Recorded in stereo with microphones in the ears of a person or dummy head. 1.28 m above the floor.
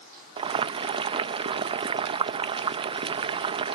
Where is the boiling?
30° right (ahead or behind).